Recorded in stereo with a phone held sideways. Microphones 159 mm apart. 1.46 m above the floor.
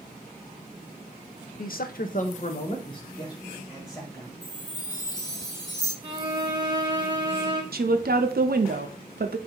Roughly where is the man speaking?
Left.